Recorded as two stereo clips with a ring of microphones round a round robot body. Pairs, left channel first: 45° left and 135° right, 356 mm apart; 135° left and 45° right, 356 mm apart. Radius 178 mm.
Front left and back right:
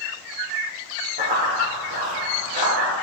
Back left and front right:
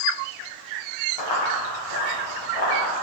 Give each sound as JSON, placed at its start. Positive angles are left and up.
{"t": 1.2, "sound": "running footsteps", "azimuth_deg": 155, "distance_m": 2.5}